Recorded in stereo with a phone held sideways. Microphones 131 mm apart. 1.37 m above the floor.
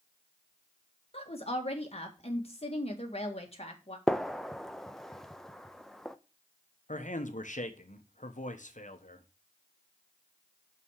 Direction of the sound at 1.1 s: 50° left (ahead or behind).